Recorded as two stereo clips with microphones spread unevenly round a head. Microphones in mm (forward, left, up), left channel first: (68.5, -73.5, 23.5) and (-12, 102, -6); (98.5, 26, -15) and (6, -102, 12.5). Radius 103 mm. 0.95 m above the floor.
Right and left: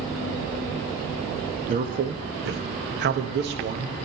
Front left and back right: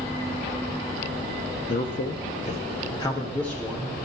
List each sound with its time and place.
1.7 s a man speaking: 75° left, 1.3 m; by 4.0 s 150° left, 1.3 m